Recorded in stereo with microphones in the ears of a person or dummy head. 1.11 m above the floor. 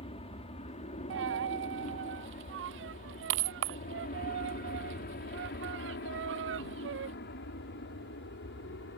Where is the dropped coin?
65° right (ahead or behind).